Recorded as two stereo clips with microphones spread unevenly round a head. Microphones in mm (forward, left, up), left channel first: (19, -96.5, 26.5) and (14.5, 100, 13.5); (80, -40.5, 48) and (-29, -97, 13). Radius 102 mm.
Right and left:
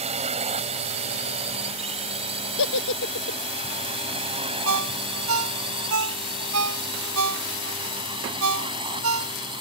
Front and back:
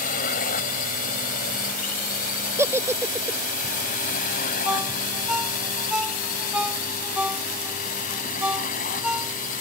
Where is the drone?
30° left; by 9.6 s 25° left.